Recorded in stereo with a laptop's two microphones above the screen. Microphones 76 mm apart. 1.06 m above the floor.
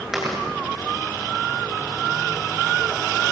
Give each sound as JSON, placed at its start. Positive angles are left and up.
{"t": 0.1, "sound": "chewing", "side_deg": -5, "distance_m": 9.0}